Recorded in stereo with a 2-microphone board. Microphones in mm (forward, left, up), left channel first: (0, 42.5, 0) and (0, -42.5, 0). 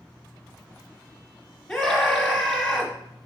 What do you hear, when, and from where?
1.7 s a scream: 15° left (ahead or behind), 1.4 m